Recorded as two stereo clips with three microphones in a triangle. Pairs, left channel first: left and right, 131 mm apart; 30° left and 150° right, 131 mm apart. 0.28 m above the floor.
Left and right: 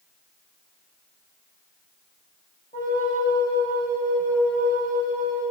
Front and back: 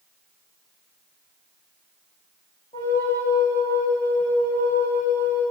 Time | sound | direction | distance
2.7 | a flute | 70° left | 6 m